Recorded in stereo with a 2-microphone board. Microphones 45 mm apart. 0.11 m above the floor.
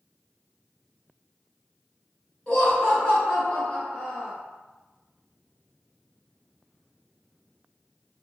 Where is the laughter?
20° left (ahead or behind), 1.3 m.